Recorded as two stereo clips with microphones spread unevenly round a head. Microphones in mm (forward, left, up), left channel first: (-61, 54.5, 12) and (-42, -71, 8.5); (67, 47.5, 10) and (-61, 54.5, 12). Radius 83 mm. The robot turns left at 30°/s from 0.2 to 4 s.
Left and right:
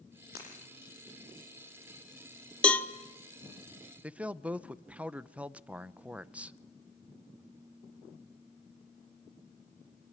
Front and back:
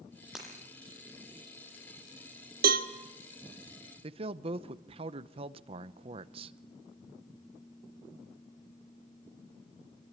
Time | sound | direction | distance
0.3 | breaking glass | 90° left | 7.5 m
2.6 | a cowbell | straight behind | 1.2 m
4.0 | a man speaking | 155° right | 0.7 m